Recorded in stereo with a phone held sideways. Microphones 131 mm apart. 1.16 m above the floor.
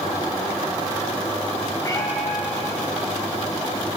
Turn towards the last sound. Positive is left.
turn(degrees=30)  # may be behind; listen again after turning